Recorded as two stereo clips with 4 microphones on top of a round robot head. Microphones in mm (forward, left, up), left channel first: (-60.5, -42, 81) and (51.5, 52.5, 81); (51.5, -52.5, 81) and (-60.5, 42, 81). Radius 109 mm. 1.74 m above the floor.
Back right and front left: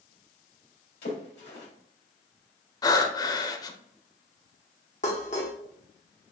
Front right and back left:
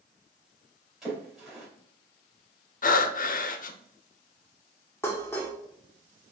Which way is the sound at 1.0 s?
135° right.